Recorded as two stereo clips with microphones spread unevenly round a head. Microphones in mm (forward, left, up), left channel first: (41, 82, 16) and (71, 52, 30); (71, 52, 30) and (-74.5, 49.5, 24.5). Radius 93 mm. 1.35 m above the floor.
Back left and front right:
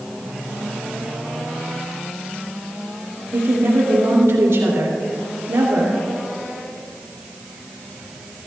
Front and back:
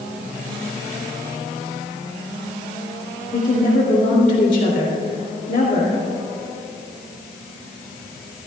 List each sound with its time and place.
3.3 s a woman speaking: 45° right, 3 m